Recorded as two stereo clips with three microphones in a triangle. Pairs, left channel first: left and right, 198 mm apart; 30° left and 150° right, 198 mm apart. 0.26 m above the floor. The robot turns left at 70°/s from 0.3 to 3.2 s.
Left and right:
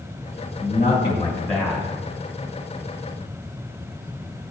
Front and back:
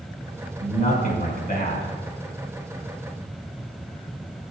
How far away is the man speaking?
About 1.7 m.